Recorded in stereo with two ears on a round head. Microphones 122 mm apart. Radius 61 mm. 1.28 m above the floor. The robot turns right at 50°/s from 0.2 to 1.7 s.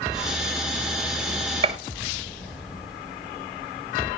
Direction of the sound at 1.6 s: 40° right (ahead or behind).